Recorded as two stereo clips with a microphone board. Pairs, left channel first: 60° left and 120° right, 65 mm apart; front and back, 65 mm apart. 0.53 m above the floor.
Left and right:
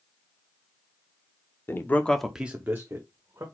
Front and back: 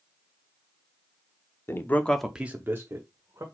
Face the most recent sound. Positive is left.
turn(degrees=-155)